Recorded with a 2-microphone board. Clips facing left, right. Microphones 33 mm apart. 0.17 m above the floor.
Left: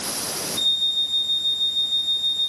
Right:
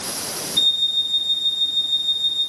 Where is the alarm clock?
85° right, 9.5 m.